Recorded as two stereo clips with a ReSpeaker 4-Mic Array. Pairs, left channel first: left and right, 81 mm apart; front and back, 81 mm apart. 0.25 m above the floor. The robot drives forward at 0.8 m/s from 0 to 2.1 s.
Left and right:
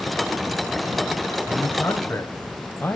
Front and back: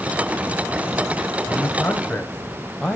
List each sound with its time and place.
1.5 s a man speaking: 50° left, 1.7 m; by 3.0 s 85° left, 1.6 m